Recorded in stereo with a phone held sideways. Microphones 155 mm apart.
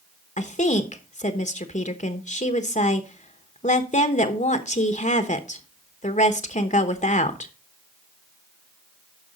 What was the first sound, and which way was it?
A woman speaking, 55° left (ahead or behind).